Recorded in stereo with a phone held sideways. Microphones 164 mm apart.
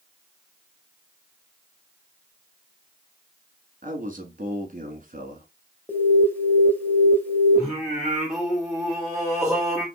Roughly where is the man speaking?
Right.